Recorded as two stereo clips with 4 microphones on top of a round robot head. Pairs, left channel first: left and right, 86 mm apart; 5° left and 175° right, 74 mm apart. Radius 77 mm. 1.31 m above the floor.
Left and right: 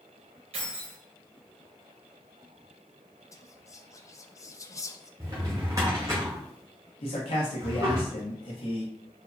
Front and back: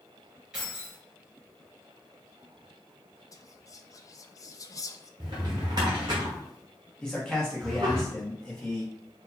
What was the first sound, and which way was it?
Keys jangling, 90° right.